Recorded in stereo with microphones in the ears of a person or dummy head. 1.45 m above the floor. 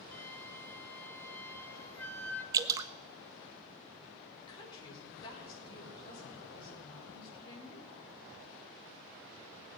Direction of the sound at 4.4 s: 25° left (ahead or behind).